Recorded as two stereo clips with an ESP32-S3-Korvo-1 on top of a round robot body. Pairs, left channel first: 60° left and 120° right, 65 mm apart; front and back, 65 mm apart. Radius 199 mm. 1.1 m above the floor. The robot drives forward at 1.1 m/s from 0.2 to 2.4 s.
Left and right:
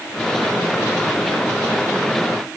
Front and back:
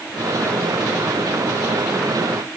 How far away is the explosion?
I don't hear an explosion.